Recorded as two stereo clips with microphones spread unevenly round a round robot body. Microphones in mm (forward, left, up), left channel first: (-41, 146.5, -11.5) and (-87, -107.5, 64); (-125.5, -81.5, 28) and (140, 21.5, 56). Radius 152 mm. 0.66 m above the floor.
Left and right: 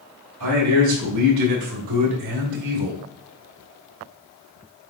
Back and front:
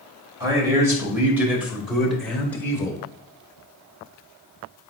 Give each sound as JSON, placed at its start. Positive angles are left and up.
{"t": 0.4, "sound": "a man speaking", "azimuth_deg": -55, "distance_m": 3.0}